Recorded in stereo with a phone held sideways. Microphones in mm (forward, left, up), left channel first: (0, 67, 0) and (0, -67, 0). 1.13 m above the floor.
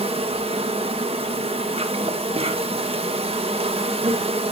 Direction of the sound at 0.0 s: 45° right (ahead or behind).